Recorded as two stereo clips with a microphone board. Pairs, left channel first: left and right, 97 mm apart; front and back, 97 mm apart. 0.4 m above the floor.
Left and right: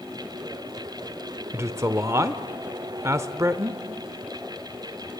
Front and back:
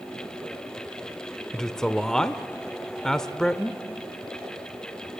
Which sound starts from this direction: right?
A man speaking, at 1.5 s.